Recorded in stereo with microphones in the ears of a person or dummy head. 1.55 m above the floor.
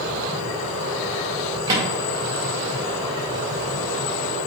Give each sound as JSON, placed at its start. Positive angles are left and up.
{"t": 1.7, "sound": "a microwave", "side_deg": -20, "distance_m": 0.6}